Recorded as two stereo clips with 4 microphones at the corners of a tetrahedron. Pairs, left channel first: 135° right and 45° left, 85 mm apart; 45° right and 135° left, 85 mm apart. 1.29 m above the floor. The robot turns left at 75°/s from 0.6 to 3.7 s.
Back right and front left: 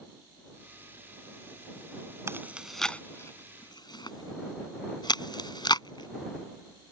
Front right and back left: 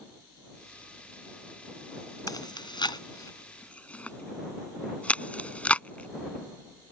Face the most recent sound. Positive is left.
turn(degrees=-115)